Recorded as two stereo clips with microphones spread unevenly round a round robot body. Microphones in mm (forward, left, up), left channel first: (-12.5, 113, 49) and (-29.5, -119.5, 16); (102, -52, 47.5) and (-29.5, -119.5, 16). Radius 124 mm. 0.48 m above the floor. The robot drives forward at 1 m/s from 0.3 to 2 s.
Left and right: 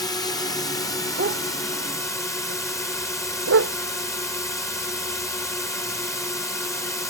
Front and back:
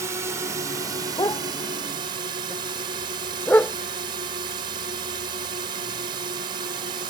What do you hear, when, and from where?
0.0 s a drone: 165° left; by 7.1 s 170° left
1.2 s a dog barking: 35° right; by 3.7 s 50° right